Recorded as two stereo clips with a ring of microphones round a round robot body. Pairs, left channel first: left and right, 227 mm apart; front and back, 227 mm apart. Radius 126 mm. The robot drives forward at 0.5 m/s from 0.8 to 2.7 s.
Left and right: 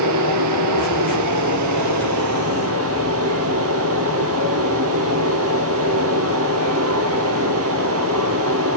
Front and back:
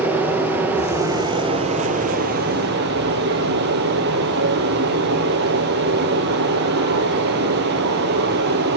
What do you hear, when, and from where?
0.0 s running water: 95° right, 1.5 m; by 8.8 s 130° right, 1.8 m